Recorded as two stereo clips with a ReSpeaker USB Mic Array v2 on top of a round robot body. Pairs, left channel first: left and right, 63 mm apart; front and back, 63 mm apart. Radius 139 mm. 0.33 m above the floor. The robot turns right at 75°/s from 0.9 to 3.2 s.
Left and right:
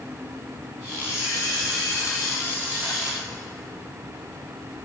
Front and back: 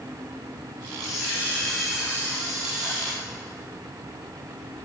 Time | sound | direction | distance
1.0 | a camera shutter | 30° left | 7 m